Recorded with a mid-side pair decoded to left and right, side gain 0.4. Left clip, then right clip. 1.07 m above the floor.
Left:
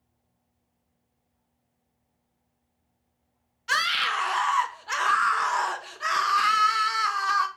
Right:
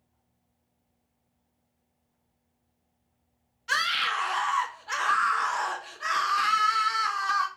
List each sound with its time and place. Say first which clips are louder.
3.7 s a scream: left 2 dB; 25° left, 0.6 m